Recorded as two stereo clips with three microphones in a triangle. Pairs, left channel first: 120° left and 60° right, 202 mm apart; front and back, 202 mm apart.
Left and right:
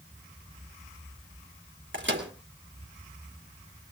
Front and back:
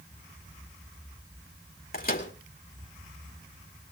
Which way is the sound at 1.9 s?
40° right.